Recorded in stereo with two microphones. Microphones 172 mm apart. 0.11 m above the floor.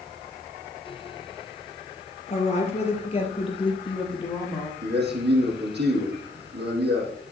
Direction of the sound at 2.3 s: 40° left (ahead or behind).